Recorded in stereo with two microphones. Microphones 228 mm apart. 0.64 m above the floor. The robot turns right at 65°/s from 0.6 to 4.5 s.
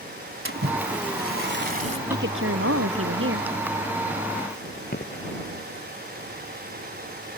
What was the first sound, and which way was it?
A splash, 115° right.